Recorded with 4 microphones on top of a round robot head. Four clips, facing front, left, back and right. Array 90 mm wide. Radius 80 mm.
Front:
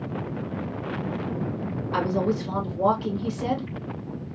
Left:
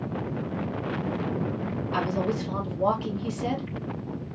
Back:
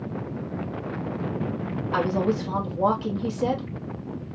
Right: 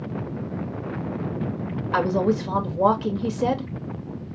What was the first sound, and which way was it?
A woman speaking, 105° right.